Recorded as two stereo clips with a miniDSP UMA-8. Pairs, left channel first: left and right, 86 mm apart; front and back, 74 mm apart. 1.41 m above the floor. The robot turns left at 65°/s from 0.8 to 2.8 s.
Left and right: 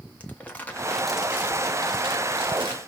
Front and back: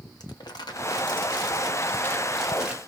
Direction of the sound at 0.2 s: 20° left.